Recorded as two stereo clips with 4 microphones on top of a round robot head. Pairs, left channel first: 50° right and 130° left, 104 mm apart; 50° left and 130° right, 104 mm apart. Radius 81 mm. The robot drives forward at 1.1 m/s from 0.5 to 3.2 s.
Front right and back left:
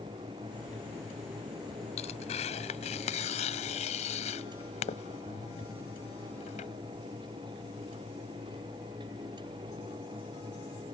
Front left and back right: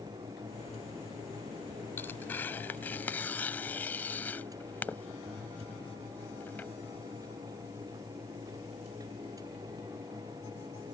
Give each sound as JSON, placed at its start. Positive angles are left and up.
{"t": 2.0, "sound": "tearing paper", "azimuth_deg": -20}